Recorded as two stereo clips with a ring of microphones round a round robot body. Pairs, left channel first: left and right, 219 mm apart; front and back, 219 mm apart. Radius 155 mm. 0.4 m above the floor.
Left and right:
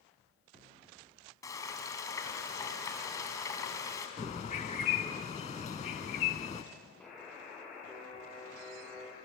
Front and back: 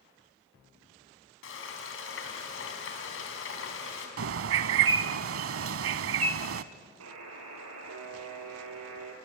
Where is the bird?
160° left, 0.6 m.